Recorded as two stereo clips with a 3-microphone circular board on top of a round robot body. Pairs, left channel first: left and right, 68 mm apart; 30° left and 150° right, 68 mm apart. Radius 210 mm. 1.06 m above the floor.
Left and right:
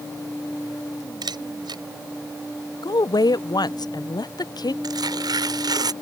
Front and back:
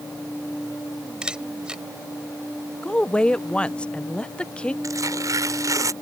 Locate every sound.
1.2 s a camera shutter: 70° right
2.8 s a woman speaking: 105° left
4.8 s tearing paper: 110° right